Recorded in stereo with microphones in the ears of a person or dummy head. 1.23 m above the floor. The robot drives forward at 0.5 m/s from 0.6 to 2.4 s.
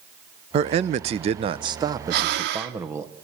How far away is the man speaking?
About 0.5 m.